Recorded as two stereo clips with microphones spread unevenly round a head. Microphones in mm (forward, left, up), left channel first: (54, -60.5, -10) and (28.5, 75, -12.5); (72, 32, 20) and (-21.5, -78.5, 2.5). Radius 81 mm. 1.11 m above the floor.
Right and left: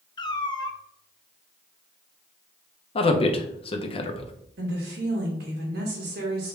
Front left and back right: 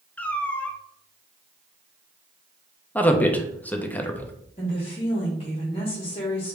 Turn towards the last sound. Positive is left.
turn(degrees=110)